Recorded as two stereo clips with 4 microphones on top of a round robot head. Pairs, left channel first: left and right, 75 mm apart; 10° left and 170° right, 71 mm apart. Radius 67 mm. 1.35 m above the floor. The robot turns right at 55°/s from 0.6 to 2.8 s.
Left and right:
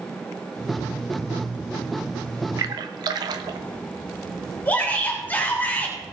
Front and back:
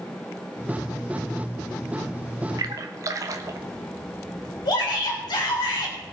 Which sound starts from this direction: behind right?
A splash, at 2.6 s.